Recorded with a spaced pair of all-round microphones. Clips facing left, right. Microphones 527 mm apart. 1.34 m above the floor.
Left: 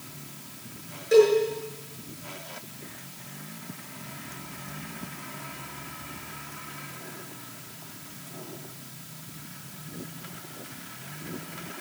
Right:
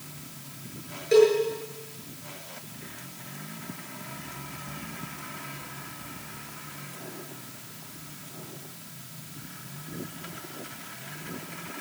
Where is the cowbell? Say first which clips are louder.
Even; 50° left (ahead or behind), 7.5 m.